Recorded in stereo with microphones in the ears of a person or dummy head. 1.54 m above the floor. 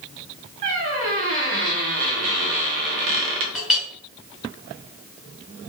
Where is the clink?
5° right (ahead or behind), 0.7 m.